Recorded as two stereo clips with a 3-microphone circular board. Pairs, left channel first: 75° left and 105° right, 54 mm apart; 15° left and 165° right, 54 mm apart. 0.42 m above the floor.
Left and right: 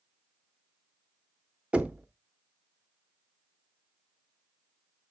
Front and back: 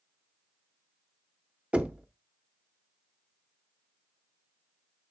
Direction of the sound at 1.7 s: 145° right.